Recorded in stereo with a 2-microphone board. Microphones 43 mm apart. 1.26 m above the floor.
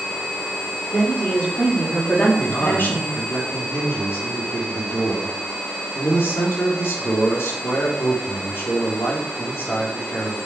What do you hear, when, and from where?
0.9 s a woman speaking: 45° left (ahead or behind), 5 m; by 3.2 s 65° left (ahead or behind), 2 m
2.4 s a man speaking: 75° left (ahead or behind), 3.5 m